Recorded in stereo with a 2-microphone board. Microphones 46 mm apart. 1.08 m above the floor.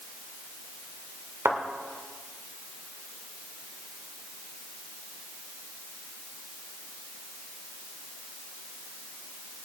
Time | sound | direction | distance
1.4 | a thud | 75° right (ahead or behind) | 1.9 m